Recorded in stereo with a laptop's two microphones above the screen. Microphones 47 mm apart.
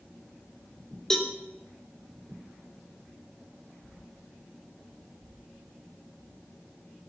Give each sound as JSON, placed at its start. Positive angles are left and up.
{"t": 1.1, "sound": "a cowbell", "side_deg": 10, "distance_m": 3.5}